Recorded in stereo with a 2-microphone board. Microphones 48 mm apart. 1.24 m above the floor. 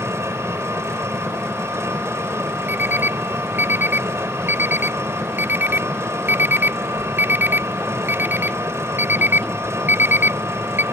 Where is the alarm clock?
45° right (ahead or behind).